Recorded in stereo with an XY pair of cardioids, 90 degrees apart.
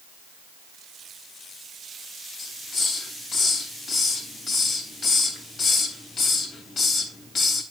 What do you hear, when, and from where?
2.4 s a hiss: 65° left, 3 m